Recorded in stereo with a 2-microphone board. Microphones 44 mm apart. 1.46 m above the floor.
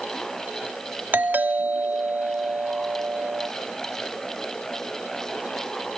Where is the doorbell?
45° right (ahead or behind).